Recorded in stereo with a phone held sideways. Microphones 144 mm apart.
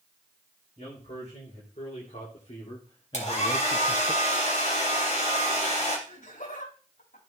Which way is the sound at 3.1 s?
50° left (ahead or behind).